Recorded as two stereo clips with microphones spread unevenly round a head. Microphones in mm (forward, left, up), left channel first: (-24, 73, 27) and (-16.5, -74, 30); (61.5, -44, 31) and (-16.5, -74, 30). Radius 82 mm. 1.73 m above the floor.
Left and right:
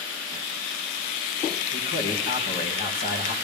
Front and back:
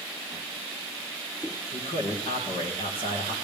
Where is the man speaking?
60° left, 2.5 m.